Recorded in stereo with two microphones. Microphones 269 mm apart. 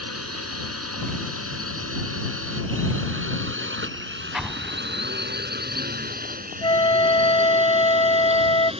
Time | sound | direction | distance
0.0 | a drone | 65° right (ahead or behind) | ?
4.3 | an explosion | centre (ahead or behind) | ?
6.6 | a flute | 20° left (ahead or behind) | ?